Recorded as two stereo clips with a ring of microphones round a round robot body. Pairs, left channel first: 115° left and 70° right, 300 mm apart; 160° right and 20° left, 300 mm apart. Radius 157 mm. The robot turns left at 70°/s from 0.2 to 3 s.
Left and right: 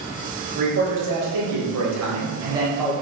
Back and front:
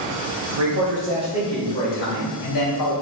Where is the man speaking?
Straight ahead, 3 m; by 2.9 s 170° right, 3 m.